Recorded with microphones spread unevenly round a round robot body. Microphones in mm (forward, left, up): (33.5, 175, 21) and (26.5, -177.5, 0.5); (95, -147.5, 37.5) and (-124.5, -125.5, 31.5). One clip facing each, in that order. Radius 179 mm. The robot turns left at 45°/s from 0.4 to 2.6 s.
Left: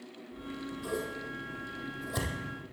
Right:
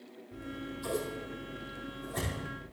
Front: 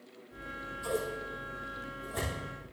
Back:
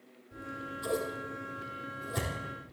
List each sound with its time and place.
0.3 s scissors: 150° right, 4.5 m; by 2.6 s 110° left, 4.5 m